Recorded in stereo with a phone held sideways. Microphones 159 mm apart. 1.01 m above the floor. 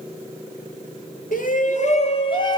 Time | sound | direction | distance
1.3 | a shout | 65° left (ahead or behind) | 2.5 m